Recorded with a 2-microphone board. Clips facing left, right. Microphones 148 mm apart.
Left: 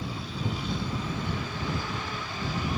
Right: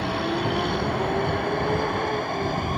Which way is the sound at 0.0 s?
70° right (ahead or behind).